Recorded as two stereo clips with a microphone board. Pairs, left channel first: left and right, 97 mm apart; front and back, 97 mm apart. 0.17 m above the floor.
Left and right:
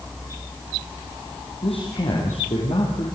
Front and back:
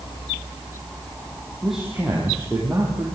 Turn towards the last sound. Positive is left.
turn(degrees=95)